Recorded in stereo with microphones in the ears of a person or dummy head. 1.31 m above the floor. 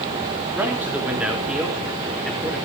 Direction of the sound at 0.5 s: 10° right (ahead or behind).